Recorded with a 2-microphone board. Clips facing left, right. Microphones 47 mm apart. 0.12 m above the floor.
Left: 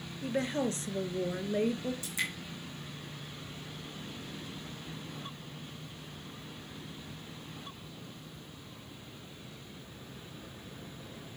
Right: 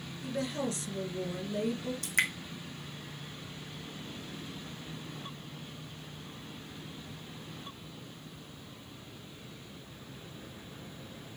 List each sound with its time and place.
0.2 s a woman speaking: 35° left (ahead or behind), 1.7 m
2.0 s dripping: 65° right (ahead or behind), 1.9 m